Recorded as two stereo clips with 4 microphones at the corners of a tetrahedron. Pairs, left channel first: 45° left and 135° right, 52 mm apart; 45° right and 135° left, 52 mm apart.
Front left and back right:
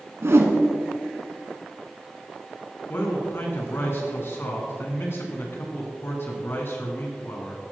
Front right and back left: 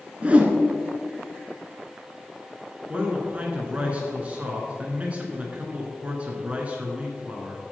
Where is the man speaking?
75° left, 2.5 m.